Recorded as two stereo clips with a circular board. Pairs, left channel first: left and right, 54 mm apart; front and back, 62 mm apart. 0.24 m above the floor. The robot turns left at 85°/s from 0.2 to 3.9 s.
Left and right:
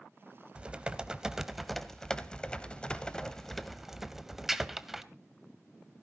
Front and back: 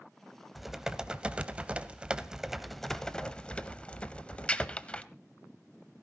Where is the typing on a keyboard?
90° right, 0.8 m; by 5.0 s 15° right, 0.8 m.